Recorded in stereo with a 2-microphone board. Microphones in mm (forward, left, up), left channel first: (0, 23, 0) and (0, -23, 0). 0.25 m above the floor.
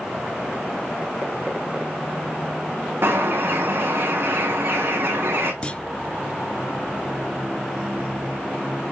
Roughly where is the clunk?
Left.